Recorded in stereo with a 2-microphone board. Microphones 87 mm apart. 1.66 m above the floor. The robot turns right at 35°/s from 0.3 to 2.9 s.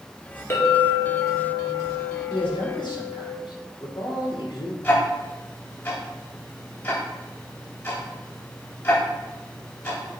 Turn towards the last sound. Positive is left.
turn(degrees=30)  # may be behind; listen again after turning